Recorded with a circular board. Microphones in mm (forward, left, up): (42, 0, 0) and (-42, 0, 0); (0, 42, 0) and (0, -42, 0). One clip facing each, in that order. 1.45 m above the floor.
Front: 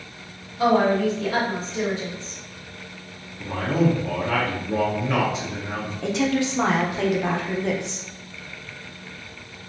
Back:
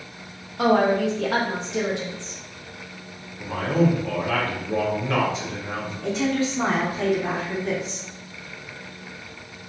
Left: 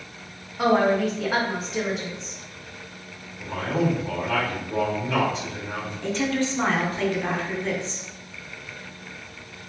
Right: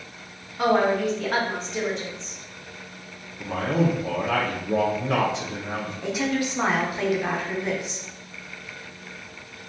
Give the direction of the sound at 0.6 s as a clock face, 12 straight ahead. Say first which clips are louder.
Even, left 1 dB; 6 o'clock.